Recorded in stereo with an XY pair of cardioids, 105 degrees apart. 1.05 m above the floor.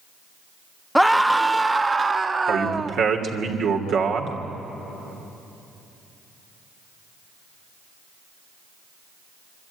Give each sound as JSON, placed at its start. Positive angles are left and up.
{"t": 0.9, "sound": "a scream", "azimuth_deg": 0, "distance_m": 1.2}
{"t": 2.5, "sound": "a man speaking", "azimuth_deg": -70, "distance_m": 2.5}